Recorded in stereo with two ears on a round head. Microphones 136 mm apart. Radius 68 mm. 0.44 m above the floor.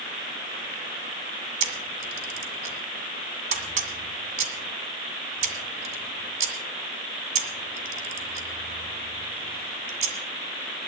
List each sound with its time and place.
1.6 s a camera shutter: 50° right (ahead or behind), 1.9 m